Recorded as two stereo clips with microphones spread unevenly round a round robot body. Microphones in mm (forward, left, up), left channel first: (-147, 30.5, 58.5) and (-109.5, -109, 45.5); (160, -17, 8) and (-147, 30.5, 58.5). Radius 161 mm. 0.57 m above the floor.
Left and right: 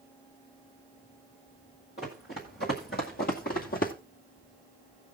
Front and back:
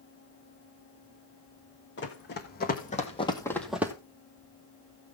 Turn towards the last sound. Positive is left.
turn(degrees=95)